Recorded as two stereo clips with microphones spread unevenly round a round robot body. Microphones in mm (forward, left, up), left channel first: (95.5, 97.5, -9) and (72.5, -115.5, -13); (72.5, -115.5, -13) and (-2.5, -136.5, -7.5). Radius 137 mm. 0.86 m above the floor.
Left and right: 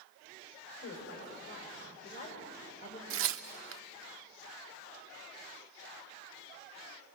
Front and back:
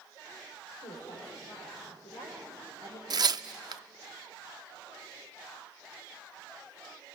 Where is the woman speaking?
50° left, 4 m; by 3.0 s 25° left, 3.5 m.